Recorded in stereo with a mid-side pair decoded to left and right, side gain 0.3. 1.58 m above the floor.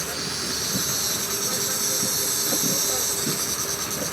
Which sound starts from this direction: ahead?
An insect, at 0.0 s.